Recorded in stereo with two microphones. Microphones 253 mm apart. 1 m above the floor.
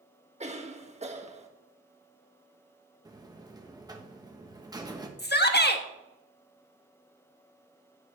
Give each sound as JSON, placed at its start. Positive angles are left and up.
{"t": 0.4, "sound": "a cough", "side_deg": -25, "distance_m": 1.5}
{"t": 3.0, "sound": "a buzzer", "side_deg": -15, "distance_m": 1.2}
{"t": 5.2, "sound": "a shout", "side_deg": 40, "distance_m": 1.3}